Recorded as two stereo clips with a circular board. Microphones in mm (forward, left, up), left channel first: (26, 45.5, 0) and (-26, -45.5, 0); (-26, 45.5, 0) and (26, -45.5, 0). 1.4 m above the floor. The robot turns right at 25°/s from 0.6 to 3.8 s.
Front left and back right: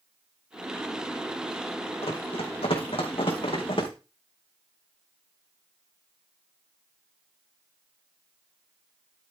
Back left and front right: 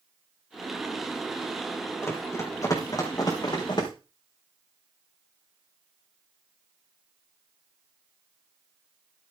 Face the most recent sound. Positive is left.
turn(degrees=80)